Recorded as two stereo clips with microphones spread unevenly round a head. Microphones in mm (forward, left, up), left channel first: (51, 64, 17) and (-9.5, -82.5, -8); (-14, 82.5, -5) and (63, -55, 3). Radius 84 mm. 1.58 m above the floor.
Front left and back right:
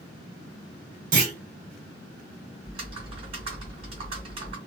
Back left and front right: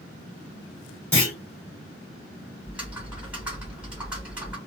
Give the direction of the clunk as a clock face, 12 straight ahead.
5 o'clock.